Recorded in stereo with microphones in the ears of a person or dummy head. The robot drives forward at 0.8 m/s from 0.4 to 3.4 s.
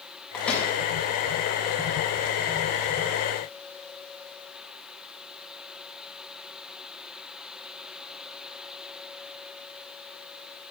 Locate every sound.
0.3 s a microwave: 5° left (ahead or behind), 7 m